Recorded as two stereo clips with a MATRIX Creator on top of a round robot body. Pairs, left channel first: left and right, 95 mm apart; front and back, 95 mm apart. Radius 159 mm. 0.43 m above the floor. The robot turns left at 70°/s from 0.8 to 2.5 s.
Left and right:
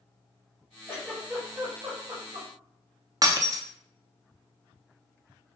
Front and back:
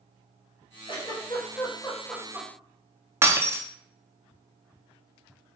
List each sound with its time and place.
0.9 s a giggle: 25° left, 1.9 m; by 2.5 s 85° right, 1.9 m
3.2 s breaking glass: 125° right, 0.7 m